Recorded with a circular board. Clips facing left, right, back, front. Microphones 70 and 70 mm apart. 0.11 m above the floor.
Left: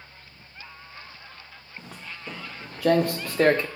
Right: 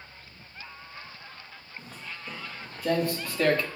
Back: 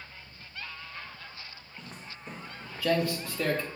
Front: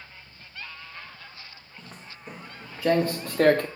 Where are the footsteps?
95° left, 1.6 m; by 3.7 s 25° left, 0.8 m.